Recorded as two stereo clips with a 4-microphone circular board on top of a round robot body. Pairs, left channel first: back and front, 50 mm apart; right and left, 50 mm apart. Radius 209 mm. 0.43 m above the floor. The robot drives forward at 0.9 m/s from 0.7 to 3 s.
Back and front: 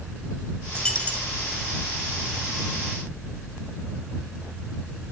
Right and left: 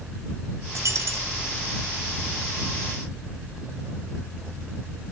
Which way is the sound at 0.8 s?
105° left.